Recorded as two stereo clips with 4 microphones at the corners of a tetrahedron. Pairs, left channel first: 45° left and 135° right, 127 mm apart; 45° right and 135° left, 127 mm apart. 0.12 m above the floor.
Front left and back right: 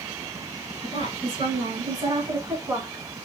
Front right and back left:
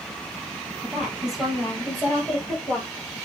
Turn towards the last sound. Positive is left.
turn(degrees=-105)